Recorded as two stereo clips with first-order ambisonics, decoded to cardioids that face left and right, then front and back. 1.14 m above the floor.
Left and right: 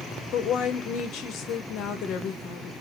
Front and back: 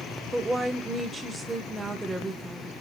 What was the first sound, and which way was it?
A woman speaking, 105° left.